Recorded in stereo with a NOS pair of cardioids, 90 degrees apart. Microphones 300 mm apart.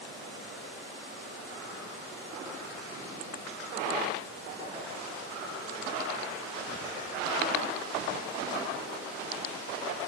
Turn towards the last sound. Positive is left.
No sound to turn to.